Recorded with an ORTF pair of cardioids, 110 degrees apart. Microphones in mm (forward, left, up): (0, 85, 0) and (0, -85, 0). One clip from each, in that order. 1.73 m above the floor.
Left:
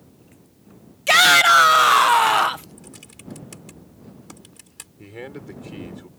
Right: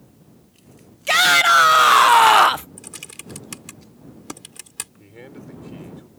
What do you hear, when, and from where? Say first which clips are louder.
1.1 s a shout: left 1 dB; 15° left; by 2.7 s 45° right
2.8 s typing on a keyboard: right 6 dB; 50° right
5.0 s a man speaking: left 5 dB; 40° left